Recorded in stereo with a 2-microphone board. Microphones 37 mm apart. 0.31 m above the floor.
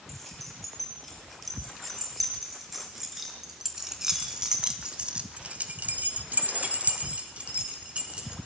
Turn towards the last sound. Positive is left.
turn(degrees=-30)  # may be behind; listen again after turning